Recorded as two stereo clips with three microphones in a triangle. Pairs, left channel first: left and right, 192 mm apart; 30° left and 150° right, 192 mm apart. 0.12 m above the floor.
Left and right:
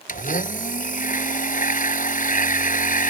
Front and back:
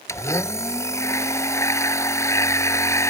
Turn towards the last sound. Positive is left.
turn(degrees=100)